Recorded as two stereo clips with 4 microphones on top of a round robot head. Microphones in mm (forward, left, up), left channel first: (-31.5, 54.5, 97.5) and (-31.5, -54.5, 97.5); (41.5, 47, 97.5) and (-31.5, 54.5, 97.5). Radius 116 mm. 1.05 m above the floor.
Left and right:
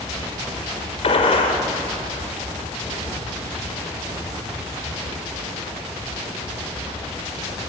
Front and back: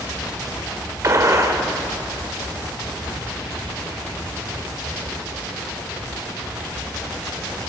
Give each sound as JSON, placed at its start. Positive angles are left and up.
{"t": 1.0, "sound": "a gunshot", "azimuth_deg": 125, "distance_m": 2.5}